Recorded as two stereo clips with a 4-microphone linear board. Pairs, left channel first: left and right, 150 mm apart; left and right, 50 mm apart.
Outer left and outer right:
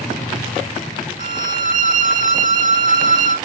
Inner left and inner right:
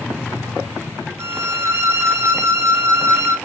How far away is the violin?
About 2.5 m.